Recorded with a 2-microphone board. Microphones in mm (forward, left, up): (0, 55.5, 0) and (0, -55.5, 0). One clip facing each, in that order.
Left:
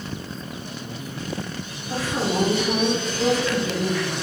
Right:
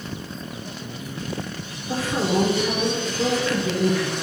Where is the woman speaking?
40° right (ahead or behind), 1.4 m.